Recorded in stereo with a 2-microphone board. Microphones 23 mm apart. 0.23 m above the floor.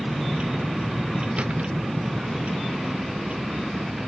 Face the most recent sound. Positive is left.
turn(degrees=-90)